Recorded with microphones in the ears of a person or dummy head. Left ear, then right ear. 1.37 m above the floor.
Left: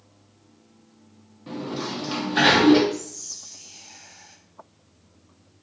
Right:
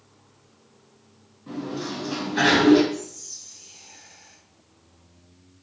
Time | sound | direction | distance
1.5 | a sliding door | 40° left (ahead or behind) | 0.8 m
2.9 | whispering | 15° left (ahead or behind) | 0.5 m